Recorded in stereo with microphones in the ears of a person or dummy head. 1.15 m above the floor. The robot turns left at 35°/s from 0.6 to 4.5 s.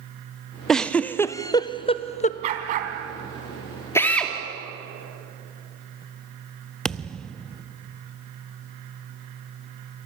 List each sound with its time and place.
0.7 s a giggle: centre (ahead or behind), 0.5 m; by 2.3 s 35° left (ahead or behind), 0.5 m
2.4 s a dog barking: 40° right (ahead or behind), 3 m; by 2.9 s 55° right (ahead or behind), 3 m
4.0 s a drill: 15° left (ahead or behind), 2.5 m; by 4.3 s centre (ahead or behind), 2.5 m
6.8 s a thud: centre (ahead or behind), 0.5 m